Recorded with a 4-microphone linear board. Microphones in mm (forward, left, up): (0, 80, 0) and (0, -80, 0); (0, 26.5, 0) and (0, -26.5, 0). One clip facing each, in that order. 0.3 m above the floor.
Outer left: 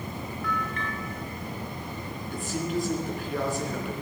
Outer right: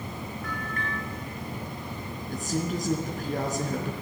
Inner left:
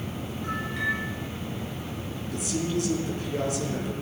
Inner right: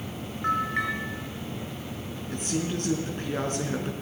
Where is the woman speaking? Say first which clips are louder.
Even, inner left 1 dB; 45° right (ahead or behind), 3 m.